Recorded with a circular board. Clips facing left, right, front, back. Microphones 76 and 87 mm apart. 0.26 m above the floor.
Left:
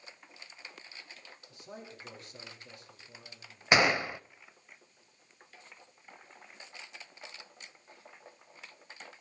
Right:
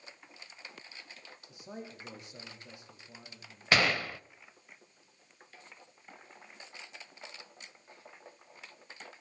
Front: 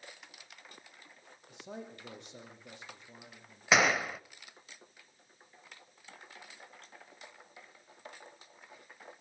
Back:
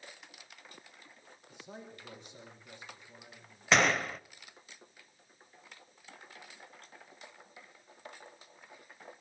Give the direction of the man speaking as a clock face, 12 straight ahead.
1 o'clock.